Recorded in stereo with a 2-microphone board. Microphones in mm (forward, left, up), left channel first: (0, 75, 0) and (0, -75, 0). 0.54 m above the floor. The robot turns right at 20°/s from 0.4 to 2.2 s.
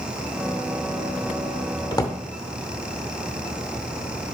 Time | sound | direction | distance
1.9 | a drawer | 25° left (ahead or behind) | 0.8 m